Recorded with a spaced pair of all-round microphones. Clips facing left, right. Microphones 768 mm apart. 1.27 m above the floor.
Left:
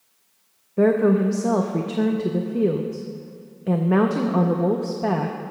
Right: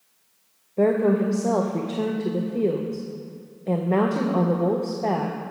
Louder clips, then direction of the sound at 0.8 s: Left 2 dB; 45° left (ahead or behind).